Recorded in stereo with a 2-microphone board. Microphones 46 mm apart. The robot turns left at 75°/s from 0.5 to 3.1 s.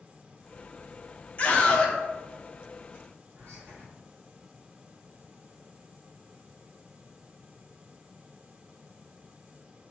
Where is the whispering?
40° right (ahead or behind), 1.4 m.